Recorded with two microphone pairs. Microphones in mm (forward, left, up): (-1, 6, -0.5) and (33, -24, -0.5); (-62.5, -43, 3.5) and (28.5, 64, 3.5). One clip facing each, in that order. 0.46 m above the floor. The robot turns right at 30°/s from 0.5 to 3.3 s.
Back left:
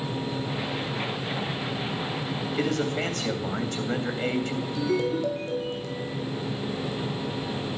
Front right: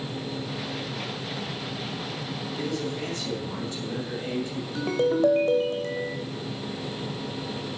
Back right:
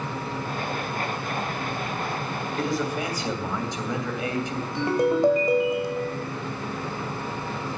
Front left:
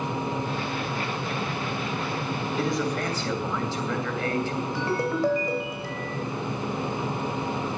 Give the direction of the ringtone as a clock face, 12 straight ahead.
2 o'clock.